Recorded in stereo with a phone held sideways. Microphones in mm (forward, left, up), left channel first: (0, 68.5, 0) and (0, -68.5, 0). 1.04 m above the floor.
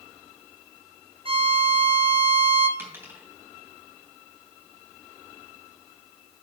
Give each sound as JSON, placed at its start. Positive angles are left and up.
{"t": 1.2, "sound": "a violin", "side_deg": -40, "distance_m": 1.0}
{"t": 2.8, "sound": "a dropped coin", "side_deg": -15, "distance_m": 3.5}